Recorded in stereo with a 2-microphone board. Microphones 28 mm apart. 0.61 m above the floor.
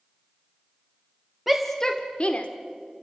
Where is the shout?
5° right (ahead or behind), 1.0 m; by 2.5 s 50° left (ahead or behind), 1.4 m.